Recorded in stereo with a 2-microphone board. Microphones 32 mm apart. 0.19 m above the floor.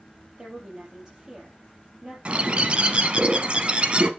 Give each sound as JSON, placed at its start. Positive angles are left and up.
{"t": 0.4, "sound": "a woman speaking", "side_deg": -25, "distance_m": 6.0}
{"t": 2.2, "sound": "a bird", "side_deg": -35, "distance_m": 0.9}